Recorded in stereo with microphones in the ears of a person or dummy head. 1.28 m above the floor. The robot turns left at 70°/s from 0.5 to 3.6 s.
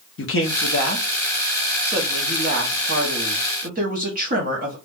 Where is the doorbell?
No doorbell in this recording.